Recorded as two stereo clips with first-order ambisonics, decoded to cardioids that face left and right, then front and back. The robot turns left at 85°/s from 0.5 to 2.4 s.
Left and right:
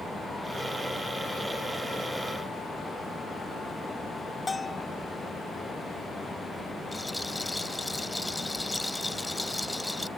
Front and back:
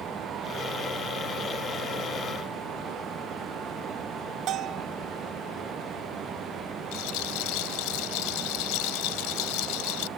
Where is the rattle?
10° left.